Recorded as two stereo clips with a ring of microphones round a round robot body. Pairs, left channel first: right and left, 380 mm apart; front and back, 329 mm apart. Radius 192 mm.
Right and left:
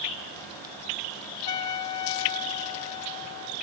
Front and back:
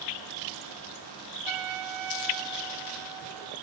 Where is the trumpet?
135° right.